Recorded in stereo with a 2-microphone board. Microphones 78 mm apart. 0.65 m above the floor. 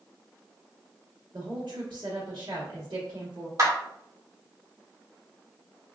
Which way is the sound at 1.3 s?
65° right (ahead or behind).